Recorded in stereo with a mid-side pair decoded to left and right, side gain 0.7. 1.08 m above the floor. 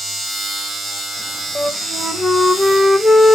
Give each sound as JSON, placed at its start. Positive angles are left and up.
{"t": 0.0, "sound": "a machine running", "azimuth_deg": -10, "distance_m": 2.0}
{"t": 1.6, "sound": "a flute", "azimuth_deg": 0, "distance_m": 0.8}